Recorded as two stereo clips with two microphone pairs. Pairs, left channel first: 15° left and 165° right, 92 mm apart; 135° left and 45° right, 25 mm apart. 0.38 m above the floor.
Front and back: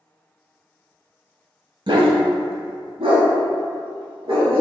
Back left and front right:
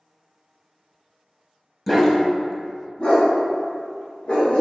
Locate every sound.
1.9 s a dog barking: 135° right, 0.6 m; by 4.6 s 170° left, 2 m